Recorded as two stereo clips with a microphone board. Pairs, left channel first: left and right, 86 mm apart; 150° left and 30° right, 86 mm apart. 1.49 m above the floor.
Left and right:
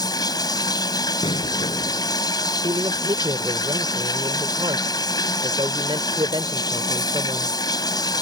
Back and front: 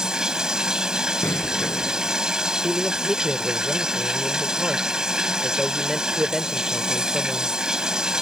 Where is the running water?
50° left.